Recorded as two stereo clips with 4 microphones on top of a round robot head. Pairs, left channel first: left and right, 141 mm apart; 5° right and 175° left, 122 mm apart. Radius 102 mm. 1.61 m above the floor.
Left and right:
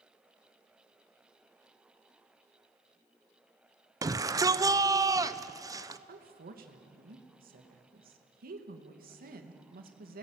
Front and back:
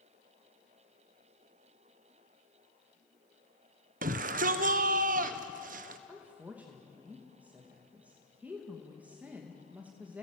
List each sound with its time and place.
4.0 s a shout: 155° right, 1.0 m
6.1 s a woman speaking: 105° right, 2 m